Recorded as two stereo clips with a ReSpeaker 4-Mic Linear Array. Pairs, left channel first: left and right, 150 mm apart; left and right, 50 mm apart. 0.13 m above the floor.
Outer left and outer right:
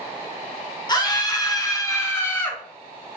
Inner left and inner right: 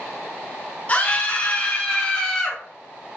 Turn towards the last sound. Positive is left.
turn(degrees=10)  # may be behind; listen again after turning